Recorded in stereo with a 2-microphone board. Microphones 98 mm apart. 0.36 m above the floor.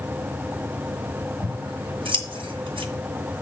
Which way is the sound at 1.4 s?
65° right (ahead or behind).